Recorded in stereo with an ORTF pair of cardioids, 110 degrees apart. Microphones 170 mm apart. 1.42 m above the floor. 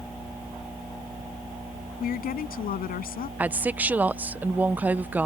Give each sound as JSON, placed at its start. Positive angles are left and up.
{"t": 2.0, "sound": "a woman speaking", "azimuth_deg": 60}
{"t": 3.4, "sound": "a woman speaking", "azimuth_deg": -10}